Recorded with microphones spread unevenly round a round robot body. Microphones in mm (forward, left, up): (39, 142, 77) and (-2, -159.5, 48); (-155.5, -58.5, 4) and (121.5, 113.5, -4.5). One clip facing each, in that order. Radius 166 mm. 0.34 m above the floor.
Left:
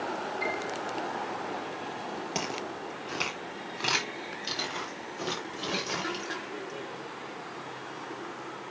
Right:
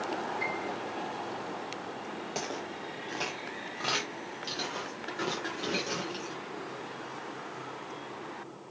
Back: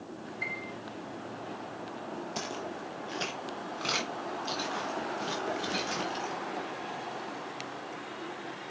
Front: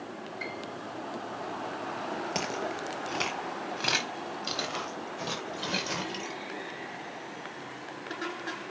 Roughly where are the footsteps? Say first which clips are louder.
Left 2 dB, front 4 dB; ahead.